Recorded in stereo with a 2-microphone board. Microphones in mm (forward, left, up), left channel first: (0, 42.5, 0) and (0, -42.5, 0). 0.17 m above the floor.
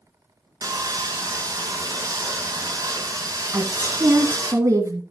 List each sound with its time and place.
0.6 s sawing: 40° right (ahead or behind), 1.5 m
3.5 s a woman speaking: 35° right (ahead or behind), 1.6 m